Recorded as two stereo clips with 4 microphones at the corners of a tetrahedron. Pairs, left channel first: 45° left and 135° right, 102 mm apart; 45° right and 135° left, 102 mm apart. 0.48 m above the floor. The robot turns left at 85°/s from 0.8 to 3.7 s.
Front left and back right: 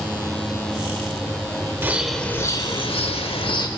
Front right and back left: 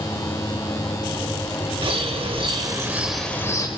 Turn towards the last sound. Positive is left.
turn(degrees=0)